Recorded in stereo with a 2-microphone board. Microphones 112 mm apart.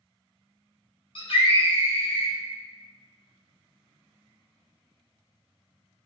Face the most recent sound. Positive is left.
turn(degrees=60)  # may be behind; listen again after turning